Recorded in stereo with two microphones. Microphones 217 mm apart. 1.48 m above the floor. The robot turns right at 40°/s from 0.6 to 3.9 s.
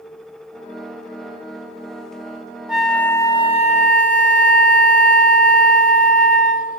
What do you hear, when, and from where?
2.7 s a flute: 5° right, 0.8 m; by 6.8 s 45° left, 0.8 m